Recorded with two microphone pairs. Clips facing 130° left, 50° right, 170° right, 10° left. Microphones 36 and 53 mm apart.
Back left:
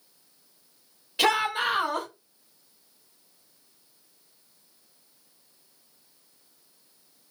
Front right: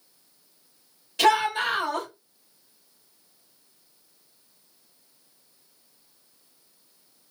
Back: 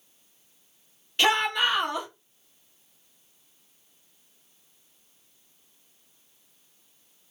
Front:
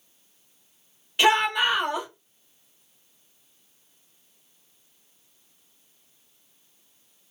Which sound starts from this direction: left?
A shout, at 1.2 s.